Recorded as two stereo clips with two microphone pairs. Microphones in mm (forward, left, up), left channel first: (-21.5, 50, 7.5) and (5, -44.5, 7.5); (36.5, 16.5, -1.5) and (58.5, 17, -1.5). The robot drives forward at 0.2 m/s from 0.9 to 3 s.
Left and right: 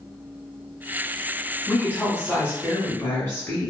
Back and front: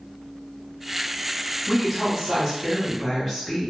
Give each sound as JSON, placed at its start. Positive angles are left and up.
{"t": 1.7, "sound": "a woman speaking", "azimuth_deg": 90, "distance_m": 1.1}